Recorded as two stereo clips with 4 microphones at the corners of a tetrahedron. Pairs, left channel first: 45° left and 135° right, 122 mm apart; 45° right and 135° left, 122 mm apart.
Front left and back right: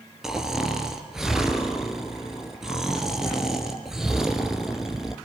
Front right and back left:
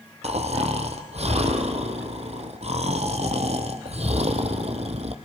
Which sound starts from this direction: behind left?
Snoring, at 0.2 s.